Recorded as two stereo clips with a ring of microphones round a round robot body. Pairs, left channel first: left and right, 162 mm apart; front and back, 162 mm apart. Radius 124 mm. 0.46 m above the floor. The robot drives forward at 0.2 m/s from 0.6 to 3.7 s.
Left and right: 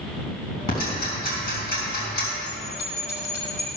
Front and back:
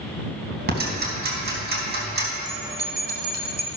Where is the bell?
150° left, 3.5 m.